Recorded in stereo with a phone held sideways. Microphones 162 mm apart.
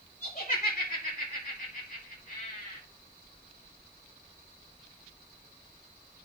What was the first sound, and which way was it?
Laughter, 55° left (ahead or behind).